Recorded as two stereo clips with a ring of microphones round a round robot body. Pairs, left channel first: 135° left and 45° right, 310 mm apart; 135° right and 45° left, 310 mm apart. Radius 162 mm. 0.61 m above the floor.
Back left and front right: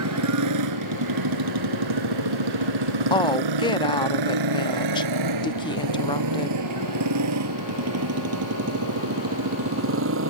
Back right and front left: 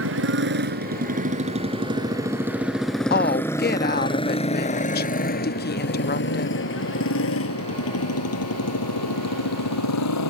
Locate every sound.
0.0 s a motorcycle: 5° right; by 10.3 s 95° right
3.1 s a woman speaking: 160° right